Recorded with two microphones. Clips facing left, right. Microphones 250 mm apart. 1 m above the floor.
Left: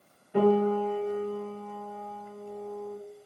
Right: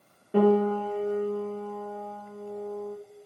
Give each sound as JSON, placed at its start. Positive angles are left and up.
{"t": 0.3, "sound": "a piano", "side_deg": -80, "distance_m": 1.7}